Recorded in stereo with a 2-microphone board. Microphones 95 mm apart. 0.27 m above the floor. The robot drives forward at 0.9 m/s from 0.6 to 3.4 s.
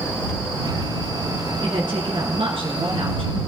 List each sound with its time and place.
1.6 s a woman speaking: 55° right (ahead or behind), 4 m; by 3.4 s 70° right (ahead or behind), 3.5 m